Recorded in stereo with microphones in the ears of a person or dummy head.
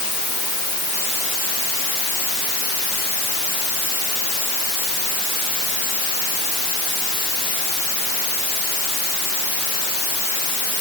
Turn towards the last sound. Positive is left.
No sound to turn to.